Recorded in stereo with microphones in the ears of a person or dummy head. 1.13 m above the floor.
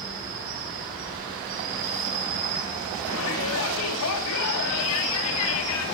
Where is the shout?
75° left (ahead or behind), 1.7 m.